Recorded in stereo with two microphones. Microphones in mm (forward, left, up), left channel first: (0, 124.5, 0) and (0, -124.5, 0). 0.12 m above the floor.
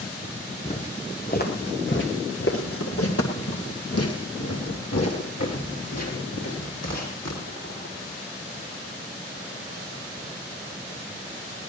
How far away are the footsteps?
About 2 m.